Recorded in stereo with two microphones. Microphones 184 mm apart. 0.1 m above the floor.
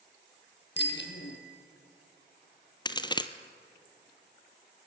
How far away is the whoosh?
No whoosh in this recording.